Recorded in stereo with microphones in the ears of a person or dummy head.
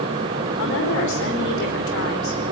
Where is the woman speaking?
65° left (ahead or behind), 4.5 m.